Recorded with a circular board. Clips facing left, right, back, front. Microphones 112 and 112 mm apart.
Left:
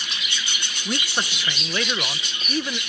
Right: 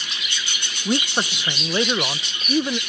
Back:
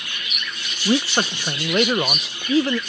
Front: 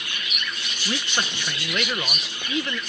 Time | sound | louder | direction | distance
0.8 | a man speaking | right 5 dB, back 9 dB | 150° right | ?